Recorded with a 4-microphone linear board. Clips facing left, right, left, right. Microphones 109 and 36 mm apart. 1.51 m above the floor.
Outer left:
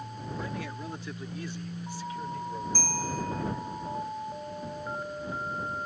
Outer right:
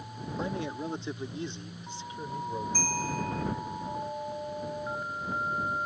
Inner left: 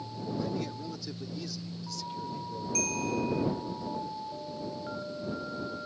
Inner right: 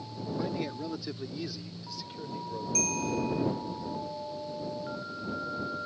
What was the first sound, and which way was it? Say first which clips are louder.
A man speaking: outer right 5 dB, inner right 2 dB; 25° right (ahead or behind).